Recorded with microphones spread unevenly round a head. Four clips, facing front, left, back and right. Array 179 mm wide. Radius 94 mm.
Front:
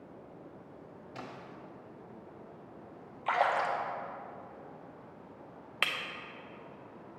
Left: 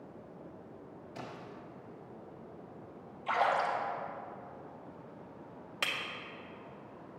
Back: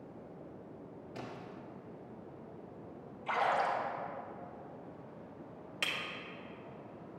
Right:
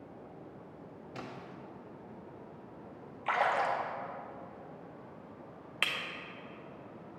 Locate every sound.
1.1 s a splash: 70° right, 1.1 m
3.3 s a splash: 10° right, 1.1 m
5.8 s breaking glass: 5° left, 0.7 m